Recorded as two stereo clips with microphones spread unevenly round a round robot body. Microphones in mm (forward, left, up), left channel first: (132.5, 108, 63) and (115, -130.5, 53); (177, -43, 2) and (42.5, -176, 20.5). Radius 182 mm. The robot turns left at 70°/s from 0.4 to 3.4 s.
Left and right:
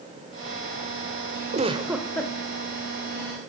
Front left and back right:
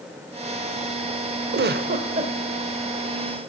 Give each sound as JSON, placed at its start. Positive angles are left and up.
{"t": 1.5, "sound": "a giggle", "azimuth_deg": -145, "distance_m": 1.4}